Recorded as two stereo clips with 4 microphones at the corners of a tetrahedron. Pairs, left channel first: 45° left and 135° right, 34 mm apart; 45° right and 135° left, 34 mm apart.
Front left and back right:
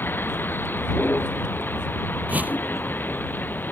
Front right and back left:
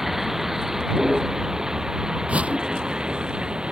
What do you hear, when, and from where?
0.0 s a vehicle: 55° left; by 3.7 s 70° left
2.3 s a whoosh: 175° right